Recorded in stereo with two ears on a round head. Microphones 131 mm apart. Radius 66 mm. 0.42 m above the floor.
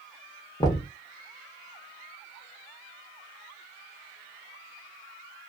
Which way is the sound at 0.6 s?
25° left (ahead or behind).